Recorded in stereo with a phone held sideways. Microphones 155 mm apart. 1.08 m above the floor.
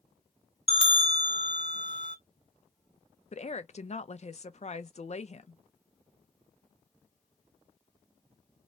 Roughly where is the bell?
Left.